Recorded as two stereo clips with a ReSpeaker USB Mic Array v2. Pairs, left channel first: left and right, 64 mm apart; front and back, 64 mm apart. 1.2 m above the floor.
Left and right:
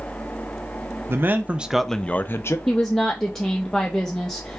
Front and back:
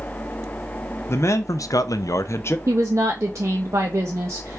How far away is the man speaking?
About 0.7 m.